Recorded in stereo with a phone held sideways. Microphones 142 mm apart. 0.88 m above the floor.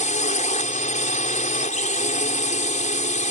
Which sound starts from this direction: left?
A drone, at 0.0 s.